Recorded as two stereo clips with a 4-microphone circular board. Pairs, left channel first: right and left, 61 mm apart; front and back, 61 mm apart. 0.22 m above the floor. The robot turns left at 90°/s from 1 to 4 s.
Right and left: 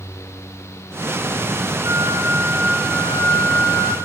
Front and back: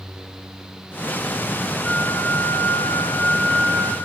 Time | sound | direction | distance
1.8 | a flute | 95° left | 1.9 m